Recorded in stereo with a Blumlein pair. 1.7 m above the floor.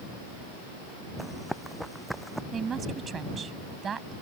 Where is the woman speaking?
20° right.